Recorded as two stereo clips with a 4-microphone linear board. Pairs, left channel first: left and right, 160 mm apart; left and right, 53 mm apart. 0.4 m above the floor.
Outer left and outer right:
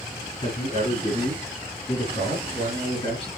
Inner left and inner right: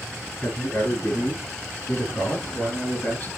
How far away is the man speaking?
About 5.5 m.